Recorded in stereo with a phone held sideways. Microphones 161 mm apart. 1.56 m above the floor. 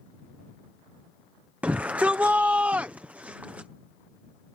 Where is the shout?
10° right (ahead or behind).